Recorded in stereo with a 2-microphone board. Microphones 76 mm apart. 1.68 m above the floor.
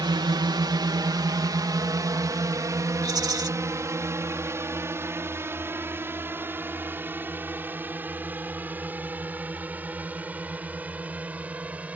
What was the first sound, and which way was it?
A drone, 75° right (ahead or behind).